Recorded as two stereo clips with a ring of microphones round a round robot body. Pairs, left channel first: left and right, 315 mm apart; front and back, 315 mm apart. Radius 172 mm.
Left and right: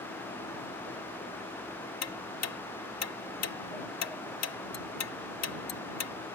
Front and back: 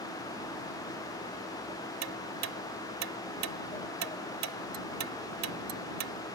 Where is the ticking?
130° left.